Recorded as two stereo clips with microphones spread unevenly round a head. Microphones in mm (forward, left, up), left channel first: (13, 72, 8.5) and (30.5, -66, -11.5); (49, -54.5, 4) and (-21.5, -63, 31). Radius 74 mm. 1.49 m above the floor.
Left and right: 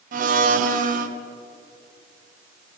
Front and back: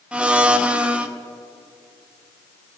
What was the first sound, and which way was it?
A blender, 85° right.